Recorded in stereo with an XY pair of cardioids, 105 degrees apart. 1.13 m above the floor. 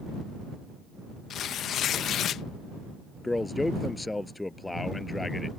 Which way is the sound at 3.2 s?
15° left.